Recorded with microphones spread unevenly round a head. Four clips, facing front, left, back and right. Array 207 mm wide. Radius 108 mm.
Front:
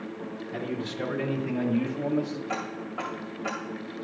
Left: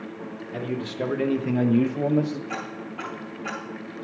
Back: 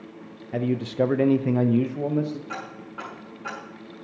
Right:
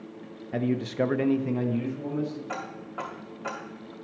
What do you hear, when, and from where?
0.5 s a man speaking: 140° right, 0.9 m; by 2.4 s 115° left, 1.1 m
2.5 s ticking: 70° right, 2.0 m